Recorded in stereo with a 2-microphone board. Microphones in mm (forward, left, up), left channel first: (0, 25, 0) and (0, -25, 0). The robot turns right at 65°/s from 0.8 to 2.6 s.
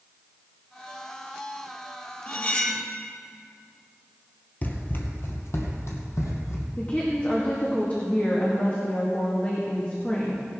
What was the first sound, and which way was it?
Cutlery clinking, 45° left (ahead or behind).